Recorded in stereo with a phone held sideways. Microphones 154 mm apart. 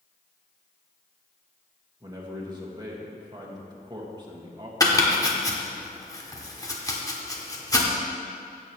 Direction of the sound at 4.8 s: 20° left (ahead or behind).